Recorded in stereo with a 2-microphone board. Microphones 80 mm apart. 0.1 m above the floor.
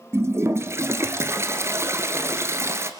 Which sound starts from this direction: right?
A toilet flushing, at 0.1 s.